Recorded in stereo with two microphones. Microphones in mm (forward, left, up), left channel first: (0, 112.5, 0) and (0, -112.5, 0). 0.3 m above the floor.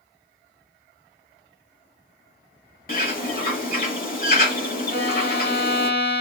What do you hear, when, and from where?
2.9 s a bird: 45° left (ahead or behind), 1.0 m
4.9 s a violin: 50° left (ahead or behind), 0.8 m